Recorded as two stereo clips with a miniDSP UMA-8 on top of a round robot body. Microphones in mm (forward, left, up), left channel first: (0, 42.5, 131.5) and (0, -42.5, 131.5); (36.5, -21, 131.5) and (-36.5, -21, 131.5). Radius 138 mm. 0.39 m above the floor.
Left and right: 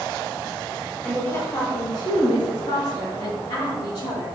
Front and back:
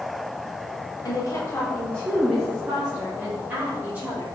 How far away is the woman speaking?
About 1.5 m.